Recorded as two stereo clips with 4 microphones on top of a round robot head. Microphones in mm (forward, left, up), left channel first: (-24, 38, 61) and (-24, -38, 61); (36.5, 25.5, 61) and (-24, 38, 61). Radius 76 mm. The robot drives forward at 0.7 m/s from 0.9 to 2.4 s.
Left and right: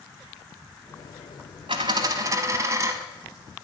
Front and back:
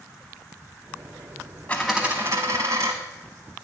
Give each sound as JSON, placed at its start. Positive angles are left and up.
{"t": 1.7, "sound": "a dropped coin", "azimuth_deg": -85, "distance_m": 0.7}